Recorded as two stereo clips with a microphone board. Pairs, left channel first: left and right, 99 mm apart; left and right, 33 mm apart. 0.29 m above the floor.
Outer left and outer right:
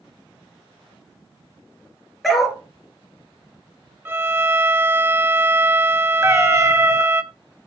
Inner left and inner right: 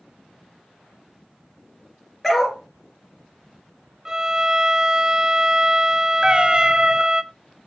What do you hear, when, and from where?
2.2 s a dog barking: centre (ahead or behind), 2.5 m
4.0 s a violin: 20° right (ahead or behind), 0.6 m
6.2 s a cat meowing: 35° right (ahead or behind), 1.4 m